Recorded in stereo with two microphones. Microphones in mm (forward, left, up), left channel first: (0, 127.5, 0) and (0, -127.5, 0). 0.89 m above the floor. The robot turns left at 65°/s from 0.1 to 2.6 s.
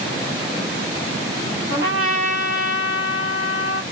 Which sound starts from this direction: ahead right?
A trumpet, at 1.7 s.